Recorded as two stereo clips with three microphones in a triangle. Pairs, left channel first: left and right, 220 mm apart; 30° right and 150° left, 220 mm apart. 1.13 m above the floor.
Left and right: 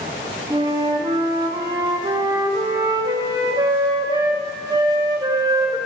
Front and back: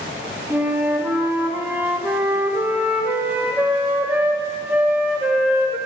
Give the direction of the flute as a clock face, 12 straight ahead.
5 o'clock.